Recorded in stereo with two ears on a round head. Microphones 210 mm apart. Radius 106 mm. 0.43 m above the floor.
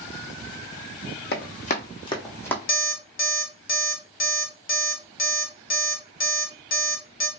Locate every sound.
1.3 s running footsteps: 45° left (ahead or behind), 1.0 m; by 2.6 s 10° left (ahead or behind), 1.0 m
2.7 s an alarm clock: 40° left (ahead or behind), 0.7 m